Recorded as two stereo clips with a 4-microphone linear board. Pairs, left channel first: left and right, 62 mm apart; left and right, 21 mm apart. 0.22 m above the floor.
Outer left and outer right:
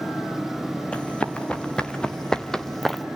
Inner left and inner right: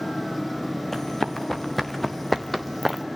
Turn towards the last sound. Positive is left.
turn(degrees=0)  # may be behind; listen again after turning